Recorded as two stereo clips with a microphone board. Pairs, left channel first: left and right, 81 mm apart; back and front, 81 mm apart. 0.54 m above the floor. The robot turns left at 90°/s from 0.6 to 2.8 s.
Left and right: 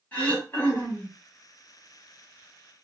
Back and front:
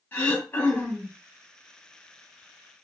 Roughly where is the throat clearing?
Behind left.